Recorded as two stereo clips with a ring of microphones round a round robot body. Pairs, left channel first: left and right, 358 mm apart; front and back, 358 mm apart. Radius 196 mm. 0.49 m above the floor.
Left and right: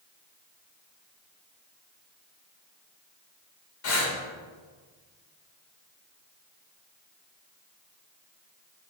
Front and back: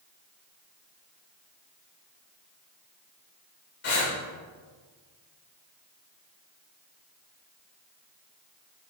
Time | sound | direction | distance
3.8 | breathing | 60° left | 2.5 m